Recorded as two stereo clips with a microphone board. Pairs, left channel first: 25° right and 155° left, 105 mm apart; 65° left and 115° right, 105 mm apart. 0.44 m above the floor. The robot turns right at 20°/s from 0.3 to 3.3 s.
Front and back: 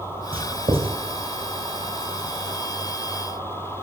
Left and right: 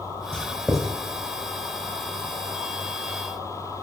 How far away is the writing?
About 2.5 m.